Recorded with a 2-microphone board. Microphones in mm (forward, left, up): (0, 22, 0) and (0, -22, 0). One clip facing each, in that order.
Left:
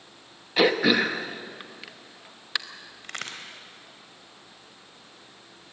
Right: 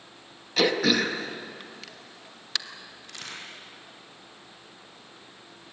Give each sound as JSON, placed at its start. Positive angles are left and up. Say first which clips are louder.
{"t": 0.6, "sound": "throat clearing", "louder": "left 2 dB", "side_deg": 15, "distance_m": 1.1}
{"t": 3.0, "sound": "a crack", "louder": "left 5 dB", "side_deg": 55, "distance_m": 3.5}